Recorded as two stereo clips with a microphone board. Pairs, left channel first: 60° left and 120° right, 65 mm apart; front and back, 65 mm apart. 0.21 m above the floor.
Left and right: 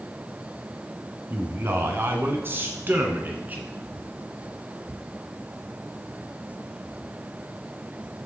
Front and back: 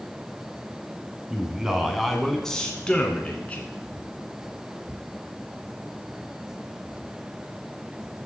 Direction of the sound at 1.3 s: 110° right.